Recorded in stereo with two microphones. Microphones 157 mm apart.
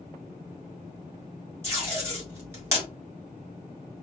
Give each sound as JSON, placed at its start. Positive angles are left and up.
{"t": 1.6, "sound": "tape being pulled", "side_deg": -15, "distance_m": 1.5}